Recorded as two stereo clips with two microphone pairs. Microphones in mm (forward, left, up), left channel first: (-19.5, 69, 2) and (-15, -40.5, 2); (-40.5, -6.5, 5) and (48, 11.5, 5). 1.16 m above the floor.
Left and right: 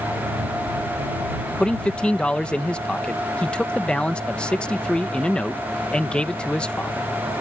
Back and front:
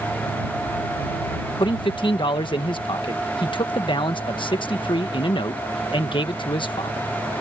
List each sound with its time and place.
1.6 s a man speaking: 170° left